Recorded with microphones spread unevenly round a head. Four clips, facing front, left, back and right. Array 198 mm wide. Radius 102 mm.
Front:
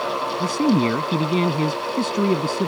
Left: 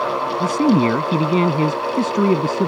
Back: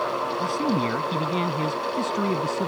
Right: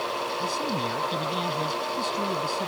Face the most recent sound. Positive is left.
turn(degrees=75)